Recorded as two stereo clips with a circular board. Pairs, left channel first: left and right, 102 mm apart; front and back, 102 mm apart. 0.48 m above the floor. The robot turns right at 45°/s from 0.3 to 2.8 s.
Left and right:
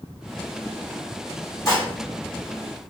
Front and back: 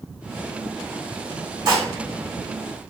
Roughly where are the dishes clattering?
Behind left.